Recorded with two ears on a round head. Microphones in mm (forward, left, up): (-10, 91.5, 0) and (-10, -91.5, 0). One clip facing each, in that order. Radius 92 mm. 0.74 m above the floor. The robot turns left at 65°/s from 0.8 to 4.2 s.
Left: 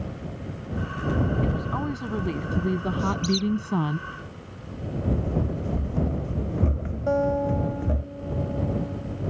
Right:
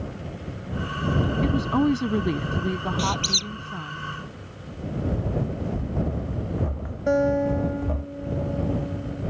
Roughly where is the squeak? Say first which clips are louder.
Left 4 dB; right.